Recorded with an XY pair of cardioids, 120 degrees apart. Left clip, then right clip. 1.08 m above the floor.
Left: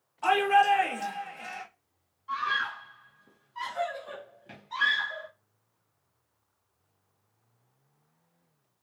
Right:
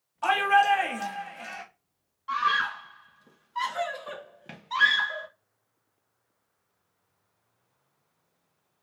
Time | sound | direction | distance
0.2 | a shout | 30° right | 1.6 m
2.3 | a scream | 50° right | 0.8 m